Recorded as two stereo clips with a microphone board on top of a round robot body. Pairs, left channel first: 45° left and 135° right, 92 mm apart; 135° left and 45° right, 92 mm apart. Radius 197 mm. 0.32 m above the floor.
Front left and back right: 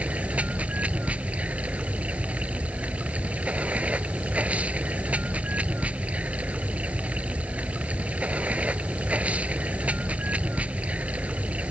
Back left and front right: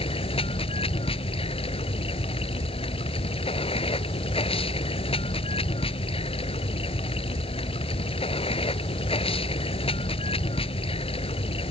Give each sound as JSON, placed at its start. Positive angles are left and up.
{"t": 0.0, "sound": "running water", "azimuth_deg": 150}